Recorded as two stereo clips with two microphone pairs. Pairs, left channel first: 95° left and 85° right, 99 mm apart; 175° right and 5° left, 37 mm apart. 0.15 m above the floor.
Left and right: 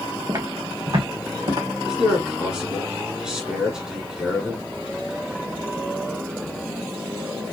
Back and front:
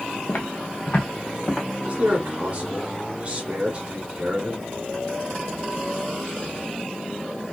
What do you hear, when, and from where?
0.3 s footsteps: 140° right, 1.2 m; by 1.7 s 110° right, 2 m
1.8 s a man speaking: 5° right, 1.6 m